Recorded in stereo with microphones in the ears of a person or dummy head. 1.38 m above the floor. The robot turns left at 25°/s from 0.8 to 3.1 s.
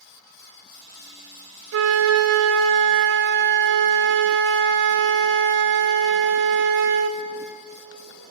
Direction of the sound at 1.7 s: 80° right.